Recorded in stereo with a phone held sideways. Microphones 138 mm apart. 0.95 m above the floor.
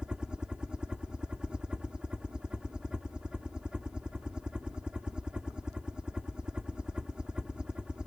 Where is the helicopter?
5° right (ahead or behind).